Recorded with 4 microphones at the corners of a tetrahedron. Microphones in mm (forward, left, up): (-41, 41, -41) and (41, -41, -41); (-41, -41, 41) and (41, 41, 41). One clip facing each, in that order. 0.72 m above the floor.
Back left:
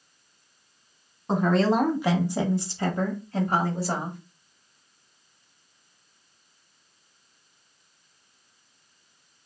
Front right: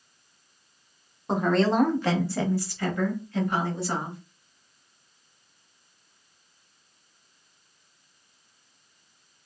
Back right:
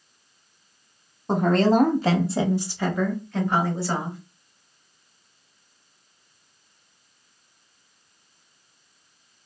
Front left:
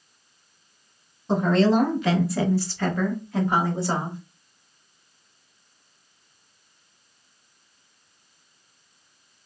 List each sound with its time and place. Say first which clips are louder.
1.3 s a woman speaking: back left 1 dB, even; 135° right, 1.0 m; by 4.2 s 100° left, 1.1 m